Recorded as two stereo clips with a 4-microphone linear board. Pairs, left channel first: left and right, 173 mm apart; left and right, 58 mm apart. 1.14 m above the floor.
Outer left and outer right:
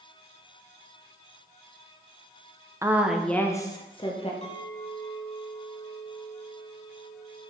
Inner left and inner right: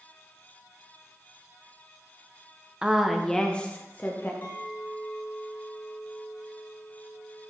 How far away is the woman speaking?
About 0.8 m.